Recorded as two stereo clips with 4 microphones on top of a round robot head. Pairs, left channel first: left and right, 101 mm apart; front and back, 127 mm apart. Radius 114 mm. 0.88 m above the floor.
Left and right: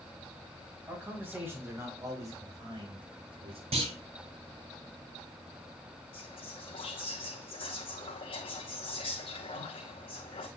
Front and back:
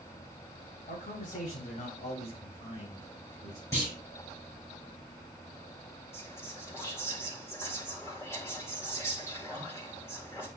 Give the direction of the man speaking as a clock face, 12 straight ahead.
1 o'clock.